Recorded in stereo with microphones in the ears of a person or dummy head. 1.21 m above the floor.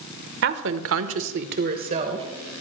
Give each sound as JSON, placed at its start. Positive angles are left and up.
{"t": 0.4, "sound": "a woman speaking", "side_deg": -55, "distance_m": 1.2}